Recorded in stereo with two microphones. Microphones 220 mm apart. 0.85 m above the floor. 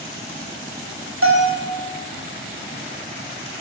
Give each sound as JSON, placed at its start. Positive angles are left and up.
{"t": 1.2, "sound": "a bell", "side_deg": -75, "distance_m": 7.0}